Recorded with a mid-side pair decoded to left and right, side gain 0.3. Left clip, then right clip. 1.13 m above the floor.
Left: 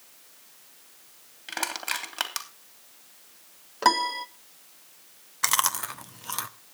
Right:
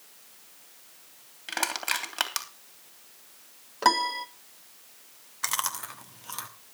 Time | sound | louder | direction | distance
1.5 | crushing | right 1 dB | 15° right | 3 m
3.8 | a piano | left 1 dB | 15° left | 0.9 m
5.4 | chewing | left 6 dB | 60° left | 1.1 m